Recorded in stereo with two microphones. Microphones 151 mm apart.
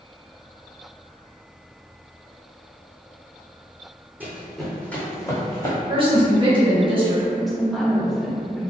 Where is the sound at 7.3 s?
Centre (ahead or behind), 0.9 m.